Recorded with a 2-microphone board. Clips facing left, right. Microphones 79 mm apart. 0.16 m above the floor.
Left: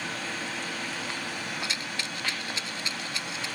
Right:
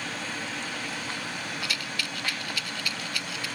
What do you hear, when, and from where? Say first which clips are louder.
1.6 s a rattle: even; 30° left (ahead or behind)